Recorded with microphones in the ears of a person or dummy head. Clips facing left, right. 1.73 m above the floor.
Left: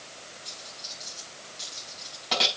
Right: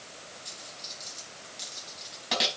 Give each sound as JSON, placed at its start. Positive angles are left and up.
{"t": 0.5, "sound": "a dropped coin", "side_deg": 0, "distance_m": 4.5}